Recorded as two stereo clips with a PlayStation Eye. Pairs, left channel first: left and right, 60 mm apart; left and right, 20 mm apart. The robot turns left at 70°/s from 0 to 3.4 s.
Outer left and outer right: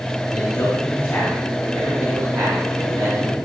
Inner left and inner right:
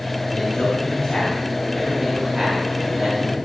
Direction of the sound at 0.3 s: 75° left (ahead or behind).